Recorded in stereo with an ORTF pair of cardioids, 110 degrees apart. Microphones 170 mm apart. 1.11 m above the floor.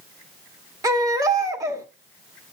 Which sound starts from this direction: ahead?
A baby crying, at 0.8 s.